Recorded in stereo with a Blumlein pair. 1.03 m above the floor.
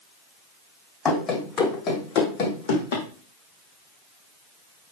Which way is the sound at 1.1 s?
15° left.